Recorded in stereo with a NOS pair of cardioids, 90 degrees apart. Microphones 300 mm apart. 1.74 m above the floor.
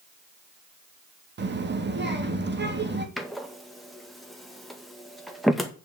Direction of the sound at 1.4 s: 35° right.